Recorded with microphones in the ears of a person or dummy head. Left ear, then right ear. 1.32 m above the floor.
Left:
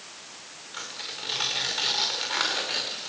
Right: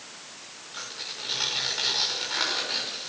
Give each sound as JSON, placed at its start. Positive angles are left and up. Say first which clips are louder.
{"t": 0.7, "sound": "tearing paper", "louder": "even", "side_deg": 20, "distance_m": 5.0}